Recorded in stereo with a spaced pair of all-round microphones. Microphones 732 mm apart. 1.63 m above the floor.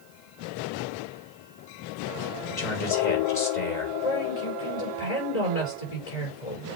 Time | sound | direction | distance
2.5 | a man speaking | 65° left (ahead or behind) | 2.5 m
4.0 | a woman speaking | 50° left (ahead or behind) | 5.5 m